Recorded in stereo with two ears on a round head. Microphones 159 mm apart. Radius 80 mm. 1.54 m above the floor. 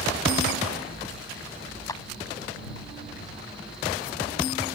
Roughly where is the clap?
Centre.